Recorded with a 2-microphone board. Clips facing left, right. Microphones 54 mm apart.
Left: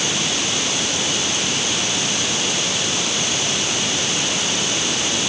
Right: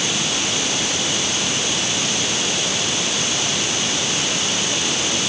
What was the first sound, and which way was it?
Only background noise.